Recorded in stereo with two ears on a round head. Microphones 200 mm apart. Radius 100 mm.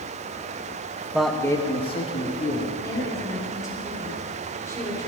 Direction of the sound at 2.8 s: 15° left (ahead or behind).